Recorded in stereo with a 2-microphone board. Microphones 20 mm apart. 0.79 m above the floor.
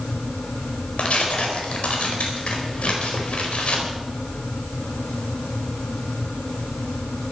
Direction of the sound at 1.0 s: 80° left.